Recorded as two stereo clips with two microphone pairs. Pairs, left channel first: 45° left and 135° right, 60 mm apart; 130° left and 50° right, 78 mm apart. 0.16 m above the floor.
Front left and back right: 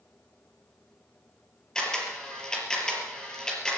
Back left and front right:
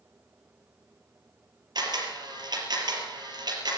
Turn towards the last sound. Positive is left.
turn(degrees=-30)